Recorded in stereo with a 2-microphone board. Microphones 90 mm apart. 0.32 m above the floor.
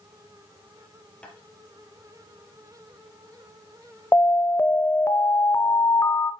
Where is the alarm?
30° left (ahead or behind), 0.8 m.